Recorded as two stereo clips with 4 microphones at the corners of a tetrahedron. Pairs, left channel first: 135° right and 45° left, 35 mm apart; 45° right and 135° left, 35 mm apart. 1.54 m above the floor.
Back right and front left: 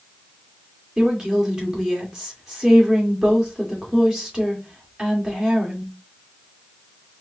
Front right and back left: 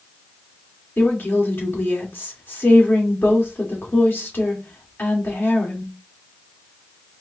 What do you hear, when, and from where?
1.0 s a woman speaking: 25° right, 2.5 m